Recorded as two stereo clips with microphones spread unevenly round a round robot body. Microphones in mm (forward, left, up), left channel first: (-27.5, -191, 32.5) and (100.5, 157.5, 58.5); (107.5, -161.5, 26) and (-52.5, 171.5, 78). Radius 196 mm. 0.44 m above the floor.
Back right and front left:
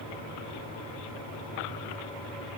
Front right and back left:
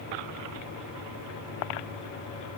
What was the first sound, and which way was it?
Only background noise.